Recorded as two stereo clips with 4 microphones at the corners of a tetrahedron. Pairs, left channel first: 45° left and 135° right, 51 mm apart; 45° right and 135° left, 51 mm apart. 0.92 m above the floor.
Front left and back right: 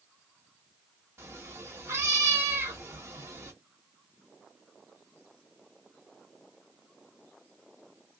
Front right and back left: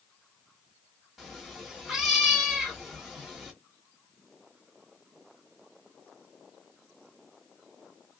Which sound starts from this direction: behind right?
A cat meowing, at 1.2 s.